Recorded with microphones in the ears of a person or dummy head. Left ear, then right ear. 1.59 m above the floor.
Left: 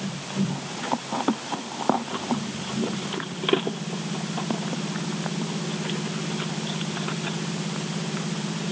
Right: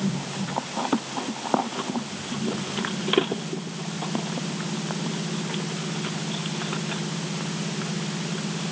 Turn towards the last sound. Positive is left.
No sound to turn to.